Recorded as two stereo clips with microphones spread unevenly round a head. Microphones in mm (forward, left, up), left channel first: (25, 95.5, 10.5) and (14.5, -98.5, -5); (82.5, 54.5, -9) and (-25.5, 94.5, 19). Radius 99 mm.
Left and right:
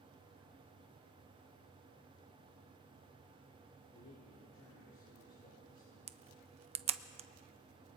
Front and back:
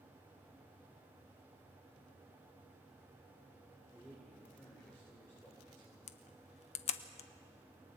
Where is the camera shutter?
35° right, 0.6 m.